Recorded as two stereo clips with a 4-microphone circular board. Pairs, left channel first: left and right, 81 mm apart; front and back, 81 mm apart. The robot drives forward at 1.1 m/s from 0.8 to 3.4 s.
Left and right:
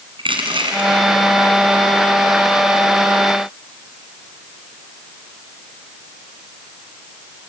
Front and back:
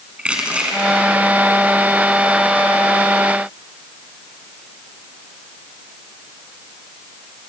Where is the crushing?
100° right, 3.5 m; by 0.9 s 105° right, 3.5 m.